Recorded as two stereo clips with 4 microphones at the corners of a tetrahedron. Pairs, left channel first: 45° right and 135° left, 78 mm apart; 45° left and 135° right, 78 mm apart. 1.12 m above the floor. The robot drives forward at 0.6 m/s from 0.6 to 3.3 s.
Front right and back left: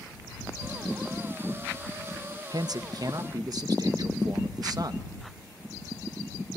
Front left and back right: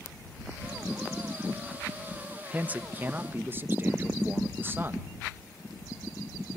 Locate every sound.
2.5 s a man speaking: 155° left, 0.7 m; by 5.1 s 165° left, 1.2 m